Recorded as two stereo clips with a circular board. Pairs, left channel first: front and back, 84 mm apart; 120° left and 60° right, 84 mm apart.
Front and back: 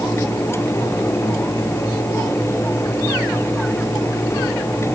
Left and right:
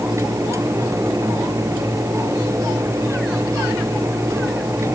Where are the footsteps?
I don't hear footsteps.